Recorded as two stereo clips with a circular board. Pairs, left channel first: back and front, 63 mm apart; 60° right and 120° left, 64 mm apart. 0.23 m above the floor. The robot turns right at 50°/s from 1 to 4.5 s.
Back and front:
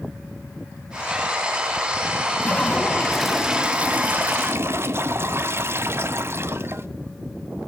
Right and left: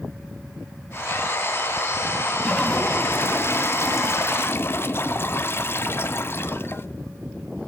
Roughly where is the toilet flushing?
Behind right.